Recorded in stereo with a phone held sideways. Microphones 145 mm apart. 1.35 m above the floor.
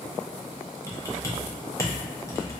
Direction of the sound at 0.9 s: 20° left (ahead or behind).